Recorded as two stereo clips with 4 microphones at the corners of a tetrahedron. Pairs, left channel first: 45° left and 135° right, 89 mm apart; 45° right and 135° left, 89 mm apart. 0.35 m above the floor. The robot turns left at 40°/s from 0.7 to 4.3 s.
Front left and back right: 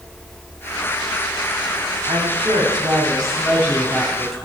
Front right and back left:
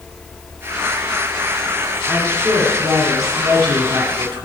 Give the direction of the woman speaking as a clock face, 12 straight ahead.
5 o'clock.